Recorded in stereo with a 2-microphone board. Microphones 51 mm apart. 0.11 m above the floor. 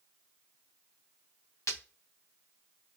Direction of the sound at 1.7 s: 70° left (ahead or behind).